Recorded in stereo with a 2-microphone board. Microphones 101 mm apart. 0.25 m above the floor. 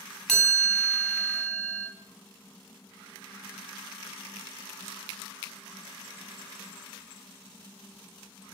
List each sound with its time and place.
0.3 s a chime: 5° left (ahead or behind), 1.7 m